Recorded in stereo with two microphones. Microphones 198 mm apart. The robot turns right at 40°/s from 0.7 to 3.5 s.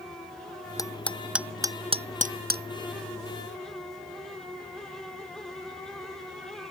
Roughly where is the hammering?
Centre.